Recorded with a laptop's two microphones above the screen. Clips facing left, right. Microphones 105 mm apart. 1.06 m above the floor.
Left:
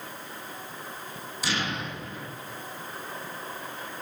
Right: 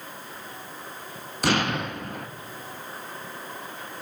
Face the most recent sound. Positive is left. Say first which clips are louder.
# right 7 dB
turn(degrees=-60)  # may be behind; listen again after turning